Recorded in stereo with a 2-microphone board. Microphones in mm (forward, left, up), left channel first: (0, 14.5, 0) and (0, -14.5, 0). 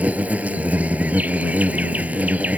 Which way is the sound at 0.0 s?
65° right (ahead or behind).